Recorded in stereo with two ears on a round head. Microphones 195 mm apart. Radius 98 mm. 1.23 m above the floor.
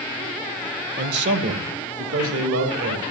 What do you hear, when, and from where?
1.0 s a man speaking: 40° right (ahead or behind), 0.8 m; by 3.0 s 75° right (ahead or behind), 3.5 m